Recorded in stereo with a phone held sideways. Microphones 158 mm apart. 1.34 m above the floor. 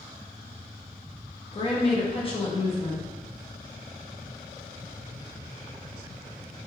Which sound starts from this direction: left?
A woman speaking, at 1.5 s.